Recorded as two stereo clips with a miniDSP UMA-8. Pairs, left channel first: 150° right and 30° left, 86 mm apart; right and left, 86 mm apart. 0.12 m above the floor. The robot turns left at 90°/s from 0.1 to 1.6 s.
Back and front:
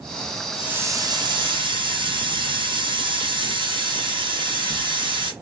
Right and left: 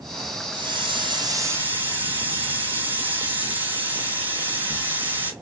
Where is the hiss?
115° left, 0.9 m; by 5.3 s 20° left, 0.9 m.